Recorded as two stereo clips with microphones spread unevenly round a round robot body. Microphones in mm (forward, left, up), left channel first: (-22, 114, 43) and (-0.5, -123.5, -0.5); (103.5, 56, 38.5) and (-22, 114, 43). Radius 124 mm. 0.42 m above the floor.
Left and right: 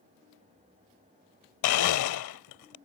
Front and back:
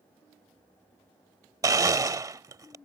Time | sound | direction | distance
1.6 | a blender | 90° left | ?